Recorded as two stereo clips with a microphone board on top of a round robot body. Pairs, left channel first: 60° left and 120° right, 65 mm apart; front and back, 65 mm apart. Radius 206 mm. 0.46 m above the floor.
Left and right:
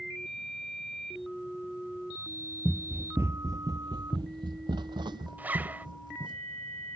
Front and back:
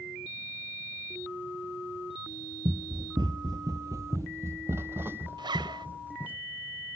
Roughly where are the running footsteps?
Behind left.